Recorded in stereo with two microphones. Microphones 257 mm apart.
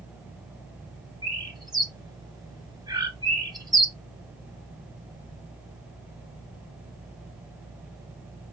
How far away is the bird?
About 1.3 m.